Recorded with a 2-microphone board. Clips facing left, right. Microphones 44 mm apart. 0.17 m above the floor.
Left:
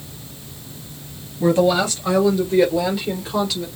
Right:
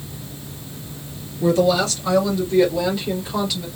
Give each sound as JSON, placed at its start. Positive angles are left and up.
{"t": 1.4, "sound": "a woman speaking", "side_deg": 25, "distance_m": 2.5}